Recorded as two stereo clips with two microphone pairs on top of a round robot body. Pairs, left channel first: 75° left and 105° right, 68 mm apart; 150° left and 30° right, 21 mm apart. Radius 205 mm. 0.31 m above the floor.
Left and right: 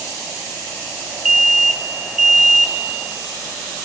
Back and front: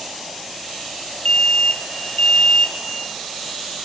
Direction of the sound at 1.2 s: 170° left.